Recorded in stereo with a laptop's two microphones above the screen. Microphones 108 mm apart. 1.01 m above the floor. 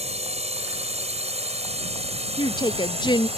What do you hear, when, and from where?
0.0 s a drone: 80° right; by 3.4 s 70° right (ahead or behind)
2.4 s a woman speaking: 45° left (ahead or behind)